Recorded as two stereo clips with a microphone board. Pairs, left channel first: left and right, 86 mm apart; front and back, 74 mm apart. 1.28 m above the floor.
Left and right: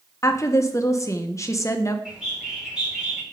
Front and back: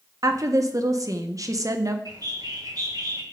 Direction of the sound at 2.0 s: 170° right.